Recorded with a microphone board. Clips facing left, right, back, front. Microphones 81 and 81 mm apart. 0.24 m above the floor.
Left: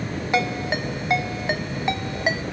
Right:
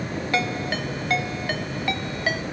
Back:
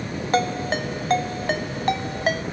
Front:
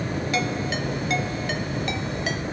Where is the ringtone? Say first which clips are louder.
Left 3 dB, back 7 dB; 155° left, 1.0 m.